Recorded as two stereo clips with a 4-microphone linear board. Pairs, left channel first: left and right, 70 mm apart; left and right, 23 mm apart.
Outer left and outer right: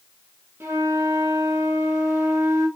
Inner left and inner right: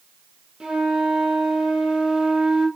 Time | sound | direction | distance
0.6 | a flute | 30° right (ahead or behind) | 3 m